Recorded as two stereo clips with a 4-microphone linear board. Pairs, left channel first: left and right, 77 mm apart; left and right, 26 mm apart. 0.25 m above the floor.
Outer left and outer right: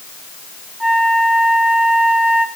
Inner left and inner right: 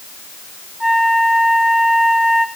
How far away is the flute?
About 2.5 m.